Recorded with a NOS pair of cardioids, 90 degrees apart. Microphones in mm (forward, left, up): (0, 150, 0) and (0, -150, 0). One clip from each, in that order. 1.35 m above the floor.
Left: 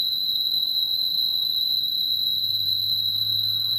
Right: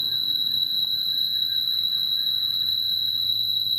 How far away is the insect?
About 1.5 m.